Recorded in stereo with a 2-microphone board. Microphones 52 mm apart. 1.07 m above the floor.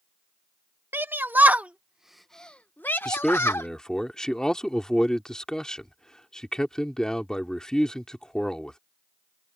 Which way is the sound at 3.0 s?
15° left (ahead or behind).